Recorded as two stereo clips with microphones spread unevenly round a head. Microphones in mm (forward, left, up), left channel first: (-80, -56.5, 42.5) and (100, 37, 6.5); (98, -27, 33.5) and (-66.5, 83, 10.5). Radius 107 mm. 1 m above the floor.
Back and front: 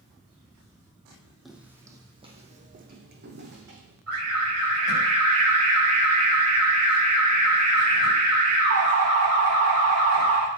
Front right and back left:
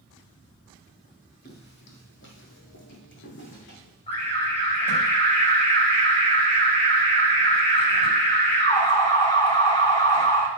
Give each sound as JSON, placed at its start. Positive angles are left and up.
{"t": 1.4, "sound": "footsteps", "azimuth_deg": -70, "distance_m": 1.8}
{"t": 4.1, "sound": "an alarm", "azimuth_deg": 25, "distance_m": 7.0}